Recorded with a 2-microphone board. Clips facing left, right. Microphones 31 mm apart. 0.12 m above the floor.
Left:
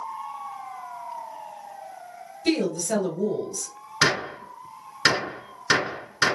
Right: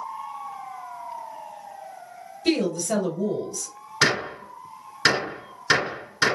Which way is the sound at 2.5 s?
Centre (ahead or behind).